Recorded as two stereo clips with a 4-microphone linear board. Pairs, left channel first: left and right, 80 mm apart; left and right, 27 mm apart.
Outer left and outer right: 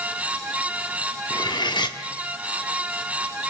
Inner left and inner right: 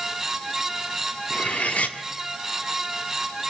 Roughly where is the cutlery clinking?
Left.